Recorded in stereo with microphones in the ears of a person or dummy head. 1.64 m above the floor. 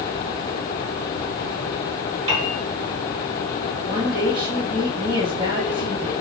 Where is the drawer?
No drawer in this recording.